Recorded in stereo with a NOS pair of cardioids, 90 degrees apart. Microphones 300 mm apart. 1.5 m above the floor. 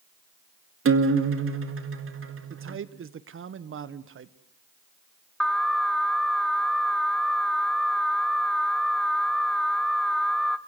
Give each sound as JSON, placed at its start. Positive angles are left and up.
{"t": 0.8, "sound": "a guitar", "azimuth_deg": -45, "distance_m": 2.0}
{"t": 2.5, "sound": "a man speaking", "azimuth_deg": -45, "distance_m": 1.4}
{"t": 5.4, "sound": "an alarm", "azimuth_deg": 0, "distance_m": 1.1}